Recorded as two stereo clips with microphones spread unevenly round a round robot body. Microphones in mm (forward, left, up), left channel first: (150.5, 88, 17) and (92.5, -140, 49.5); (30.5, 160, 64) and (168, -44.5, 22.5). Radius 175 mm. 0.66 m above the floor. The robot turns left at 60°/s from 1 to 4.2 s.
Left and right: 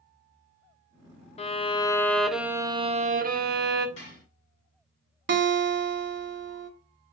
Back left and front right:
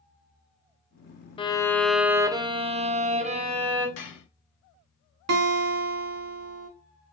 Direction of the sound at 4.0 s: 135° left.